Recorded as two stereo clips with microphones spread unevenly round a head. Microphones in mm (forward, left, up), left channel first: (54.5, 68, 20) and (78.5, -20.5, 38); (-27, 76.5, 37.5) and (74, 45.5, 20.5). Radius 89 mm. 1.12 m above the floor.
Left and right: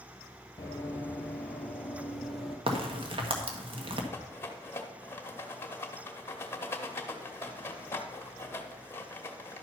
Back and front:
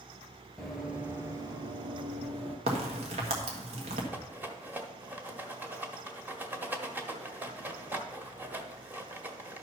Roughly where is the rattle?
Ahead left.